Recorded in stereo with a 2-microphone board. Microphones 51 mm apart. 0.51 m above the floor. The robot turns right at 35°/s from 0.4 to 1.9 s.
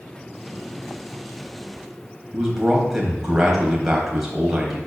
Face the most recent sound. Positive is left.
turn(degrees=-5)  # may be behind; listen again after turning